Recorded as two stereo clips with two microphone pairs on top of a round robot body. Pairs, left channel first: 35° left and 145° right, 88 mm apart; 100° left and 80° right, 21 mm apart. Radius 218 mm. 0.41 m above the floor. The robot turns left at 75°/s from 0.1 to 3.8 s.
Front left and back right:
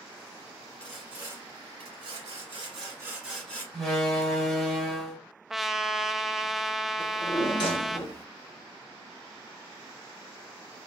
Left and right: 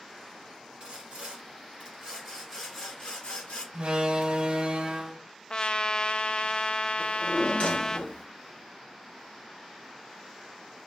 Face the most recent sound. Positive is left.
turn(degrees=80)